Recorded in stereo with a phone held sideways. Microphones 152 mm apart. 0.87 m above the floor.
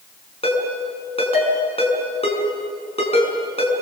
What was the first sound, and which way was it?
A ringtone, 40° left (ahead or behind).